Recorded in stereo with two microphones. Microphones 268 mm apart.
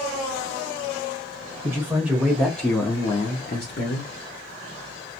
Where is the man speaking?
10° right (ahead or behind), 1.4 m; by 4.1 s 50° left (ahead or behind), 0.7 m.